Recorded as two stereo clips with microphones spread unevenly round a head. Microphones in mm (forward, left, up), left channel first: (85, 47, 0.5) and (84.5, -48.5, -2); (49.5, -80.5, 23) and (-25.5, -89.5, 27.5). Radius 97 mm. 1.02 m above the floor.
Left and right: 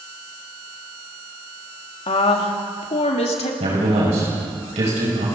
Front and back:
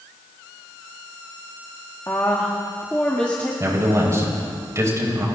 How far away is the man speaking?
About 7 m.